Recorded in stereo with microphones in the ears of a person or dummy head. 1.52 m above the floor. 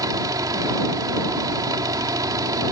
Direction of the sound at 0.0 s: 20° right (ahead or behind).